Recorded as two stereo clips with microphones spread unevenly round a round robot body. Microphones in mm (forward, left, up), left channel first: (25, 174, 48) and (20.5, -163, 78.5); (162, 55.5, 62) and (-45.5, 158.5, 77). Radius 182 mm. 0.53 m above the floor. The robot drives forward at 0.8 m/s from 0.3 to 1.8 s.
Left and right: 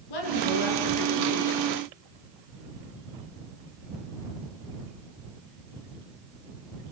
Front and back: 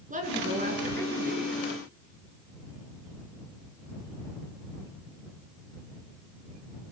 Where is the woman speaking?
95° left, 8 m; by 1.6 s 100° left, 8 m.